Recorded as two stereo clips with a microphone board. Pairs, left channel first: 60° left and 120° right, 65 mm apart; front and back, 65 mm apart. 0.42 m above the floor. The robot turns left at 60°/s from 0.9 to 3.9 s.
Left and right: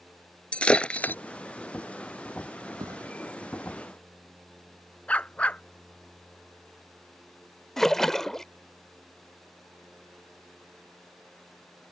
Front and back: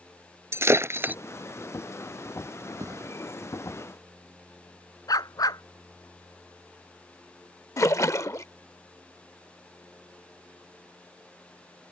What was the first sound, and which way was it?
Breaking glass, 135° left.